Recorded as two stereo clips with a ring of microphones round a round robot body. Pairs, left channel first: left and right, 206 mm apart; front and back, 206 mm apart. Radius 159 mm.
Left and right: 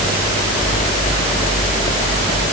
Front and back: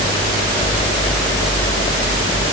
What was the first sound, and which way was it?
Only background noise.